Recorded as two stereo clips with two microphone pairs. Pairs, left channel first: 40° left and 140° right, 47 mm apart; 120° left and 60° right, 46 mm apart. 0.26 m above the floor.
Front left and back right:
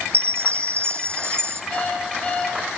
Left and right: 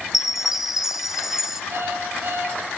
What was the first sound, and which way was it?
A chime, 140° right.